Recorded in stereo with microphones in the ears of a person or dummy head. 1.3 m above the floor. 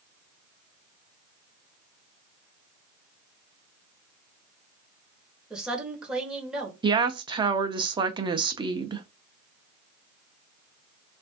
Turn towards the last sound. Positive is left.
turn(degrees=-25)  # may be behind; listen again after turning